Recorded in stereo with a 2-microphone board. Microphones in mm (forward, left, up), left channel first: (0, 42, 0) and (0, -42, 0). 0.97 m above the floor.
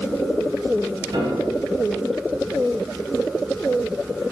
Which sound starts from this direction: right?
A piano, at 1.1 s.